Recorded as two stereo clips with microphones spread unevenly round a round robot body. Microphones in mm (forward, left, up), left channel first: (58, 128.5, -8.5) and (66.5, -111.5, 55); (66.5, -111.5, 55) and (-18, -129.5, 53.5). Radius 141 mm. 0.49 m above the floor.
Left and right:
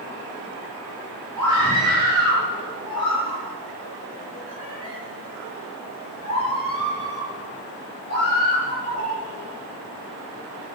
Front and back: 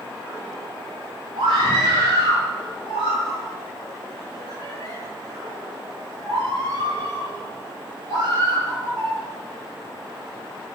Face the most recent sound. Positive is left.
turn(degrees=-160)